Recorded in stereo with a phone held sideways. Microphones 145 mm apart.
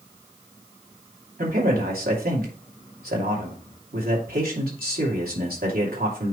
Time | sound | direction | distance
1.4 | a man speaking | 75° right (ahead or behind) | 2.5 m